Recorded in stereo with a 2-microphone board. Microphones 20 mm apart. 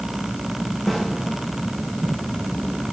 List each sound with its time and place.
0.9 s a snare drum: 5° left (ahead or behind), 6.5 m